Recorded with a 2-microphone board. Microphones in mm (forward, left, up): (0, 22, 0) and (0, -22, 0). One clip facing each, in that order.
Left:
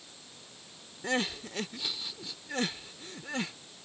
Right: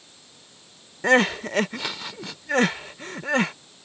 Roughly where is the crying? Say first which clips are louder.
Right 13 dB; right.